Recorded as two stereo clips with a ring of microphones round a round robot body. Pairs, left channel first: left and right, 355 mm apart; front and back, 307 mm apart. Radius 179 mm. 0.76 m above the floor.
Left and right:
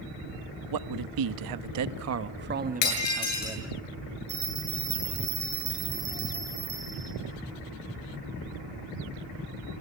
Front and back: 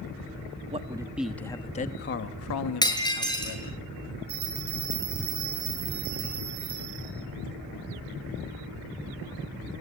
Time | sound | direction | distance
0.7 | a man speaking | 110° right | 1.1 m
2.8 | breaking glass | 75° left | 8.5 m
4.3 | a bell | 150° right | 9 m